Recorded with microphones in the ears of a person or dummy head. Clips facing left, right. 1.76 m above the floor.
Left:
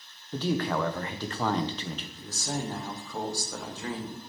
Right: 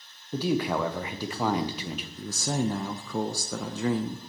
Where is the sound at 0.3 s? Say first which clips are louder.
Right 2 dB; 5° right (ahead or behind), 0.6 m.